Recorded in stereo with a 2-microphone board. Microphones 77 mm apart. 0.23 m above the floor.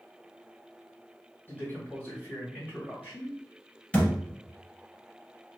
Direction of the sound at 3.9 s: 15° left (ahead or behind).